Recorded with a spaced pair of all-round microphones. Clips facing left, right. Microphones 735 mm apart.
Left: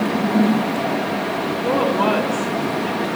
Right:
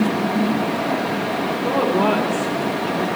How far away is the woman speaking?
About 4 m.